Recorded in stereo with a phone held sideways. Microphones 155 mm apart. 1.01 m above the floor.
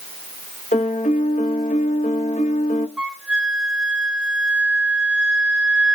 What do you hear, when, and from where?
0.7 s a piano: 55° left (ahead or behind), 1.0 m
3.0 s a flute: 5° right (ahead or behind), 0.7 m